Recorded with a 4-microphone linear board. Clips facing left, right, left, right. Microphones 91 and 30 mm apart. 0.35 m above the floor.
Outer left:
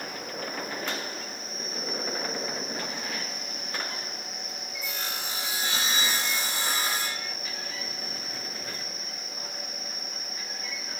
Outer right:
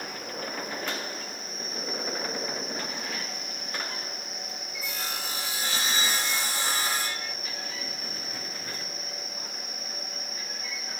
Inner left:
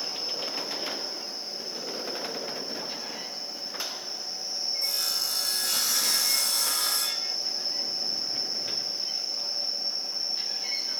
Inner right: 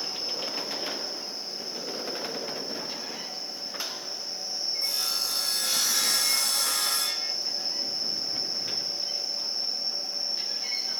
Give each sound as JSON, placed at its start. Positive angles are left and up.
{"t": 4.8, "sound": "sawing", "side_deg": -35, "distance_m": 7.0}